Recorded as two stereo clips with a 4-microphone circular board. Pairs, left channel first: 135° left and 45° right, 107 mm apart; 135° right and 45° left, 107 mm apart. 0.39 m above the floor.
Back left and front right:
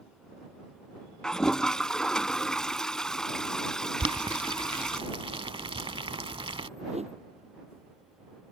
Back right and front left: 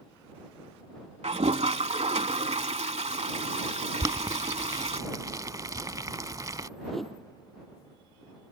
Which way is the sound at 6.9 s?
45° right.